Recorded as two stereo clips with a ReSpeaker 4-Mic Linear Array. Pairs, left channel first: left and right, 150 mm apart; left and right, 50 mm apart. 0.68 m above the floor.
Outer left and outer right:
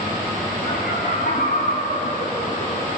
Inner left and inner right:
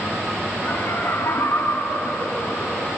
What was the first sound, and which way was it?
Laughter, 80° left.